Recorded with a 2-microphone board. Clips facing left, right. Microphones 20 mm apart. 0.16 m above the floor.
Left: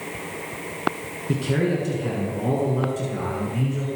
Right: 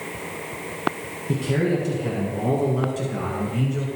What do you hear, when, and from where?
1.3 s a man speaking: 20° left (ahead or behind), 1.6 m; by 3.9 s 25° right (ahead or behind), 2.5 m